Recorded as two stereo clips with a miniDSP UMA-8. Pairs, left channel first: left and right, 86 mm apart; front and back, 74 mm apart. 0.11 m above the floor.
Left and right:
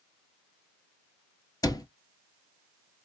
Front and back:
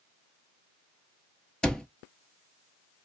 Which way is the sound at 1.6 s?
75° left.